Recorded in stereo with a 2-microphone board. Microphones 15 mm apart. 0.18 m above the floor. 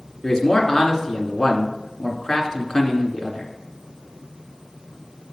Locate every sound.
0.2 s a man speaking: 35° left (ahead or behind), 1.8 m